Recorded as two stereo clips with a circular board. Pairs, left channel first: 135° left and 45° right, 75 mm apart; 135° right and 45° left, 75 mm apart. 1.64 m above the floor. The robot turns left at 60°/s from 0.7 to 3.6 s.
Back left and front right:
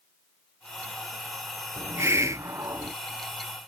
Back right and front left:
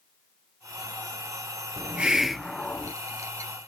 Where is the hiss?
5° right; by 2.9 s 80° right.